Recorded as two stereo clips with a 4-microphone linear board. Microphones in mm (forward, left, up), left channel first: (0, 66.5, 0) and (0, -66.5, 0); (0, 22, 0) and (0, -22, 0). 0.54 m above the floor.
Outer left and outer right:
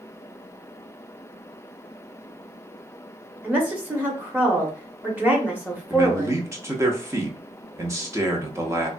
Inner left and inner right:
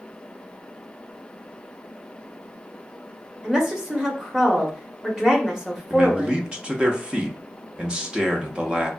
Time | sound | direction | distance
3.4 | a woman speaking | 15° right (ahead or behind) | 0.9 m
5.9 | a man speaking | 25° right (ahead or behind) | 0.6 m